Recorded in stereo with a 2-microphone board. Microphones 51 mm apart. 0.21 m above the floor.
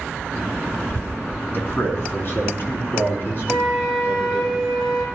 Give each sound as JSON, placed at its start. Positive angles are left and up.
{"t": 1.5, "sound": "a man speaking", "side_deg": 45, "distance_m": 2.0}
{"t": 3.5, "sound": "a flute", "side_deg": 15, "distance_m": 2.5}